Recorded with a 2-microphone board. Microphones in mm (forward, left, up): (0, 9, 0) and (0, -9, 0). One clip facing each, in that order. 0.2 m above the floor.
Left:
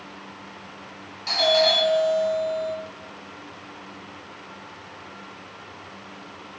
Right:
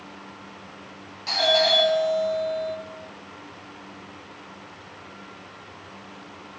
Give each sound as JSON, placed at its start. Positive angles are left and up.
{"t": 1.3, "sound": "a doorbell", "side_deg": 5, "distance_m": 1.5}